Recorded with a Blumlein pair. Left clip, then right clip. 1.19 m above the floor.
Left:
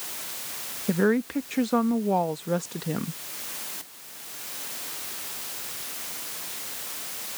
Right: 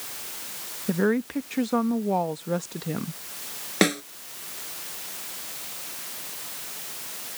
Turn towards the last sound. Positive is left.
turn(degrees=-45)